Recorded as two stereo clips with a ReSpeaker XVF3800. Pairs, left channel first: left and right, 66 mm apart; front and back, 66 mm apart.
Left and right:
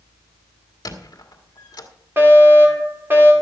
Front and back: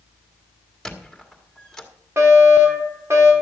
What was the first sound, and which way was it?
A squeak, 80° left.